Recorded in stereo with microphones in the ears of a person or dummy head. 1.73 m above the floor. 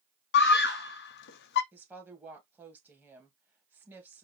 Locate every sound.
0.3 s a scream: 60° left (ahead or behind), 0.7 m
1.7 s a woman speaking: 15° right (ahead or behind), 1.9 m